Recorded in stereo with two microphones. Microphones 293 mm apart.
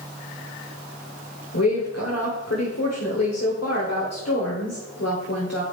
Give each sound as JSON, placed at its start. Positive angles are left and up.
{"t": 1.5, "sound": "a woman speaking", "side_deg": 55, "distance_m": 1.4}